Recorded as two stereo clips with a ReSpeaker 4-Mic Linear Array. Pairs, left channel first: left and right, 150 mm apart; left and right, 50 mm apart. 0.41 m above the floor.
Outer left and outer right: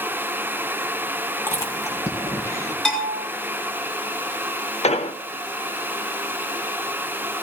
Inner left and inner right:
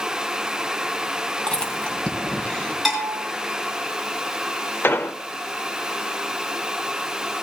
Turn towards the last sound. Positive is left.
turn(degrees=45)  # may be behind; listen again after turning